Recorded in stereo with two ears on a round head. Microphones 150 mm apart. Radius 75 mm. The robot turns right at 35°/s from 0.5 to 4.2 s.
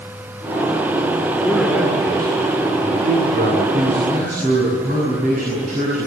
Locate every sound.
1.4 s a man speaking: 175° left, 3 m; by 3.6 s 105° right, 3 m
3.7 s a man speaking: 65° right (ahead or behind), 5.5 m; by 6.1 s 45° right (ahead or behind), 5.5 m